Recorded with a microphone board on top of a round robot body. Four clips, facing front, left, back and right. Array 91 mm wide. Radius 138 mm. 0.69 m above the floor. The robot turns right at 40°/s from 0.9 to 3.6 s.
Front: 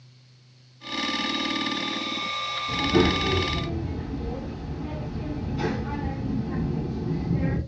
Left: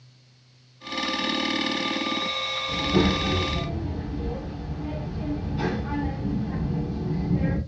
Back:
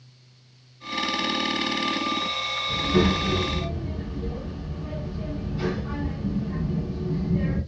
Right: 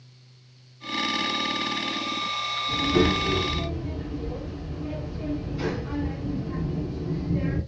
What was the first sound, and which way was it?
A child speaking, 10° left.